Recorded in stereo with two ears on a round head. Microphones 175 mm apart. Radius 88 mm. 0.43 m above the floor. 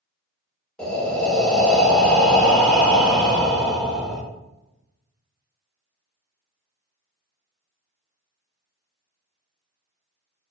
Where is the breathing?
5° left (ahead or behind), 0.7 m.